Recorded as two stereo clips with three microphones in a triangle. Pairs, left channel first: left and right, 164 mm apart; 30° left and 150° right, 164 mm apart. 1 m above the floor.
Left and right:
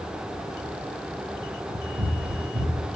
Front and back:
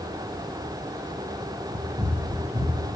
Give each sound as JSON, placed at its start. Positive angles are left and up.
{"t": 1.7, "sound": "running footsteps", "azimuth_deg": -100, "distance_m": 6.5}